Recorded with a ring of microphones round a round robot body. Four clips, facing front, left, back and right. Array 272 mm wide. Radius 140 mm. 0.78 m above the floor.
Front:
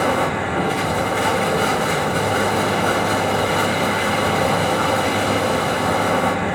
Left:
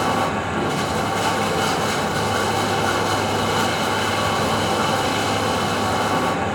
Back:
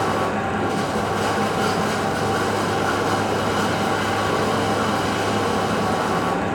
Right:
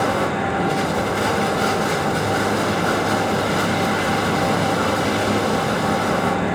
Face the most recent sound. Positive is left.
turn(degrees=-10)